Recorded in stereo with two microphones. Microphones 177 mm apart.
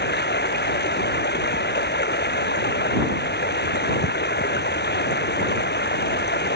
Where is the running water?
75° left (ahead or behind).